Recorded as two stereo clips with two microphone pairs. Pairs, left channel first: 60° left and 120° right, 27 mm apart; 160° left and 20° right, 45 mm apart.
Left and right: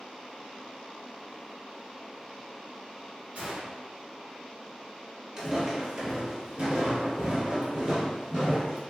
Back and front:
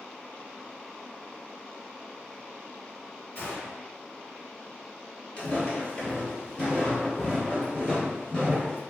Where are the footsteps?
160° right, 1.9 m; by 8.8 s 135° right, 3 m.